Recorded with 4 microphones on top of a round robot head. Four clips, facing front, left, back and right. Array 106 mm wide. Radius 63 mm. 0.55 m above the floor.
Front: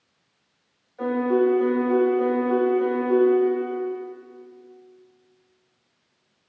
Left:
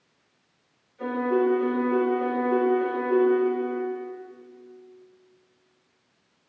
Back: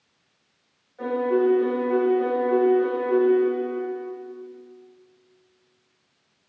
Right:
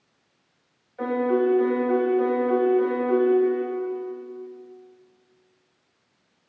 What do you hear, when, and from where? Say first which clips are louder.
1.0 s a piano: right 2 dB, front 1 dB; 75° right, 4 m